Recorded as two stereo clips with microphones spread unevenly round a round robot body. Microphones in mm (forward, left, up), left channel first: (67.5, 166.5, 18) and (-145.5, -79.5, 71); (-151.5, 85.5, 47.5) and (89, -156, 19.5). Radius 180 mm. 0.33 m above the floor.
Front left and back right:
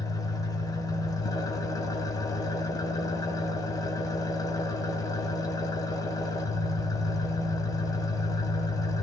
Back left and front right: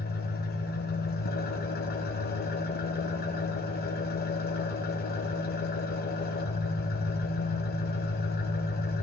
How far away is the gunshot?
No gunshot in this recording.